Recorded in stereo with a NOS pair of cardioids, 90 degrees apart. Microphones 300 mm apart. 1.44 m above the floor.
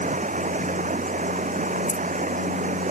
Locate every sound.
0.0 s running water: 25° right
1.9 s keys jangling: 10° left